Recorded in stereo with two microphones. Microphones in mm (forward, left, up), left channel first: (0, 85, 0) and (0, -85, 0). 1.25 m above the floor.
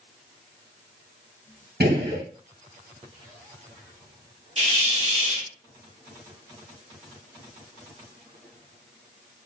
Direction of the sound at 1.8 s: 75° right (ahead or behind).